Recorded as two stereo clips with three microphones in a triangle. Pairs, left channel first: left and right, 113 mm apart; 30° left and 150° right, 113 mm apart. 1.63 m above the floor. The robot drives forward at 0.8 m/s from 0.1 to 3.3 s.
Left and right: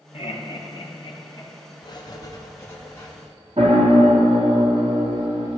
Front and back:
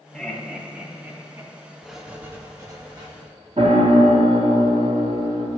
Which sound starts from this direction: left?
Laughter, at 0.1 s.